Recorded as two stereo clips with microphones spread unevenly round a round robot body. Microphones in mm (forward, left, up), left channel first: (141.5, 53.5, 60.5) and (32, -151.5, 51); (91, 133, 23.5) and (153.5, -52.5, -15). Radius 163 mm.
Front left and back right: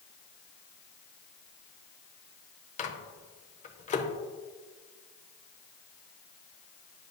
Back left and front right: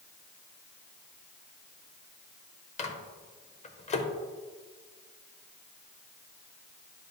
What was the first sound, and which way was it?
A microwave, 70° left.